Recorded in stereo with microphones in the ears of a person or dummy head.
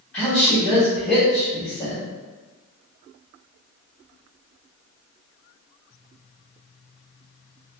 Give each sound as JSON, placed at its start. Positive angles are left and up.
{"t": 0.1, "sound": "a woman speaking", "side_deg": 5, "distance_m": 1.4}